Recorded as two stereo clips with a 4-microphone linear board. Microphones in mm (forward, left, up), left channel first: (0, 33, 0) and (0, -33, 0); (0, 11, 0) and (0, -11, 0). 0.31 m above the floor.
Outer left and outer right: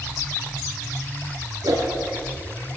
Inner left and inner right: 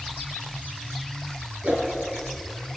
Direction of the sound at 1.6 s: 75° right (ahead or behind).